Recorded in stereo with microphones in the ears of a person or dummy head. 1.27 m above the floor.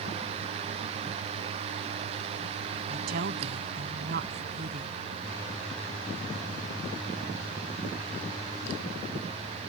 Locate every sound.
2.9 s a woman speaking: 50° right (ahead or behind); by 5.0 s 45° right (ahead or behind)